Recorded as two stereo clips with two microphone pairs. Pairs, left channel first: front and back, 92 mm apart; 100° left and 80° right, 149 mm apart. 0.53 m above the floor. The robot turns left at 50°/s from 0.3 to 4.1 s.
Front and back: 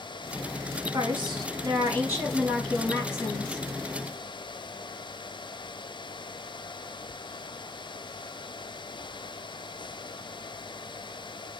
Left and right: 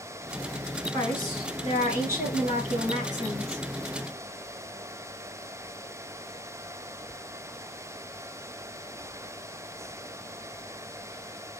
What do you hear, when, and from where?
0.9 s a woman speaking: 165° left, 5 m; by 3.6 s 30° left, 5 m